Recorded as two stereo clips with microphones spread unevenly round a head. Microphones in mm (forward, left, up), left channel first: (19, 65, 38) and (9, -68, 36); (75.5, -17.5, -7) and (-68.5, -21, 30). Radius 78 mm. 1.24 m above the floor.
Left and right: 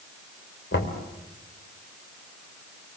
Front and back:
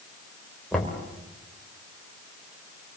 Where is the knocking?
90° left, 3.5 m.